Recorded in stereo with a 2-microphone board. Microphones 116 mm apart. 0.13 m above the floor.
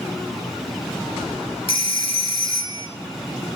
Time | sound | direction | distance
1.7 | a phone ringing | 50° left (ahead or behind) | 1.3 m